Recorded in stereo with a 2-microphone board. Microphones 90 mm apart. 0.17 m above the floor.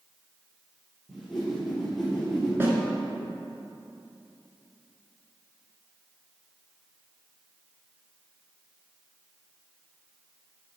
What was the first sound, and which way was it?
A whoosh, 5° left (ahead or behind).